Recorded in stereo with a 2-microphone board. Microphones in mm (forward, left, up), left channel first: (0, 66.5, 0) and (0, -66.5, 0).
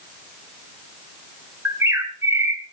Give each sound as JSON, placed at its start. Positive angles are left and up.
{"t": 1.6, "sound": "a bird", "side_deg": -20, "distance_m": 2.5}